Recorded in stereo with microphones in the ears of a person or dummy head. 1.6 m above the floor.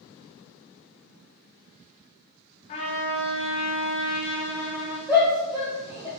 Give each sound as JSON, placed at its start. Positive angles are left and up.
{"t": 2.7, "sound": "a trumpet", "side_deg": 35, "distance_m": 0.8}
{"t": 5.1, "sound": "a shout", "side_deg": -20, "distance_m": 0.8}